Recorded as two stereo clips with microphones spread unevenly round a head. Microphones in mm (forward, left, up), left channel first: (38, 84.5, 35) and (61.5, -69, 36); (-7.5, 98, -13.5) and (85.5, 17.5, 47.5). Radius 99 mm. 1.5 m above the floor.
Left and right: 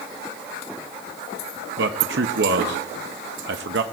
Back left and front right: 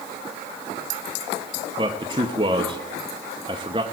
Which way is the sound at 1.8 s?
90° right.